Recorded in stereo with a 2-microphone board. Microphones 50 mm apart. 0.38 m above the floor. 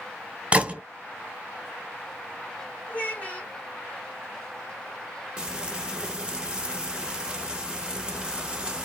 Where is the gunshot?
25° right (ahead or behind), 0.9 m.